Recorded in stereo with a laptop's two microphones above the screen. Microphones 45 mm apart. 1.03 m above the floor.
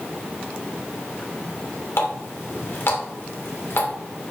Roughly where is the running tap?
Left.